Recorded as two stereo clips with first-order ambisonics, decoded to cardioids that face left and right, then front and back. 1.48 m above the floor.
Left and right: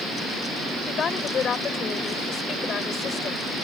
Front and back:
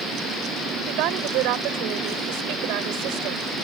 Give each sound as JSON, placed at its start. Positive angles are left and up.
{"t": 0.9, "sound": "a woman speaking", "azimuth_deg": 150}